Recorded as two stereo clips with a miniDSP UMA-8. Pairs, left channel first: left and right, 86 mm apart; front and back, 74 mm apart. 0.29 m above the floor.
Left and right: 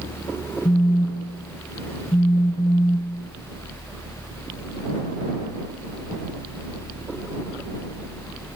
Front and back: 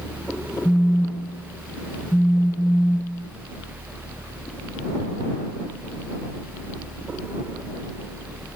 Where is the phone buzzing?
75° left.